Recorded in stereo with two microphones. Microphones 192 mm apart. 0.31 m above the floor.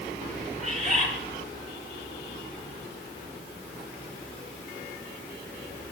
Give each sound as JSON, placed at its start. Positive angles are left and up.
{"t": 0.6, "sound": "a bird", "side_deg": -40, "distance_m": 7.5}